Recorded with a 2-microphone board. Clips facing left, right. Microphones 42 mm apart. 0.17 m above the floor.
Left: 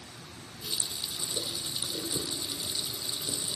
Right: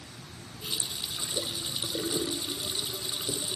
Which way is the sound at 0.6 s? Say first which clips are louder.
Right 2 dB; 30° right (ahead or behind).